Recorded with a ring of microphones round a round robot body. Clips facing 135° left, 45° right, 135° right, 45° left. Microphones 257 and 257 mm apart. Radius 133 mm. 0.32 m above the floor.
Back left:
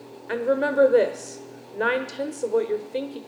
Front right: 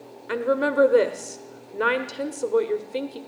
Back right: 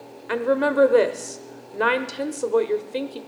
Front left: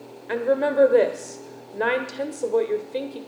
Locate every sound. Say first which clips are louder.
0.3 s a woman speaking: even, back right 1 dB; 100° right, 0.9 m